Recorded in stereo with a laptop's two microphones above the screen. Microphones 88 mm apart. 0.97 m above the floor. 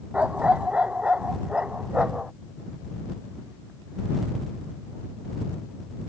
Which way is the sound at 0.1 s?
15° right (ahead or behind).